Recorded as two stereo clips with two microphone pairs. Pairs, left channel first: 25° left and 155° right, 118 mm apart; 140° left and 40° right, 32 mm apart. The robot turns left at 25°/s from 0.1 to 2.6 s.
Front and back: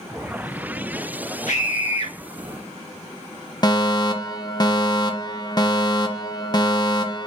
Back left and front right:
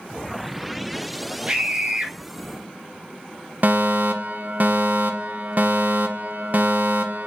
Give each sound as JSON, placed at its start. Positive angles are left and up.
{"t": 1.5, "sound": "a scream", "azimuth_deg": 20, "distance_m": 1.6}
{"t": 3.6, "sound": "a fire alarm", "azimuth_deg": -25, "distance_m": 1.9}